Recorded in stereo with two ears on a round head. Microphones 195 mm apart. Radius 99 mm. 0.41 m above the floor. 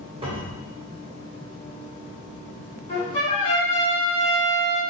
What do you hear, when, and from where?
0.2 s a cupboard door: 25° right (ahead or behind), 1.7 m
2.9 s a trumpet: 20° left (ahead or behind), 2 m